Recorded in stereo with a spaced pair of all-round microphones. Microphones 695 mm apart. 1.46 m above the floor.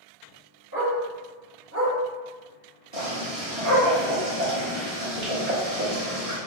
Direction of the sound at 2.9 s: 55° right (ahead or behind).